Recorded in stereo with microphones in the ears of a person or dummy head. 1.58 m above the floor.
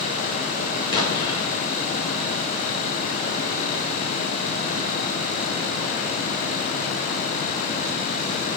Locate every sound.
0.9 s an explosion: 20° left (ahead or behind), 1.5 m